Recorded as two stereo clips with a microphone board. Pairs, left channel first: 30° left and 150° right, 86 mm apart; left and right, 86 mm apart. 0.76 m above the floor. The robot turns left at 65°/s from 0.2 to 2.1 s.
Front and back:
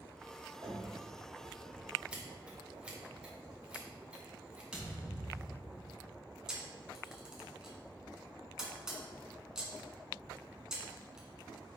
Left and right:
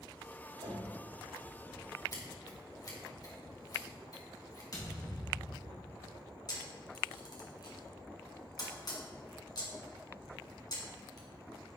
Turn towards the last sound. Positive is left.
turn(degrees=130)